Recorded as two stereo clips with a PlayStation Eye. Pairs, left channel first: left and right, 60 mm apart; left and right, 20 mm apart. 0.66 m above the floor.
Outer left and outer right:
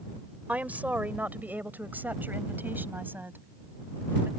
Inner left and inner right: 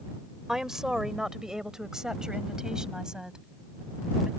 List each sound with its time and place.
0.5 s a woman speaking: 25° right (ahead or behind); by 4.3 s 35° right (ahead or behind)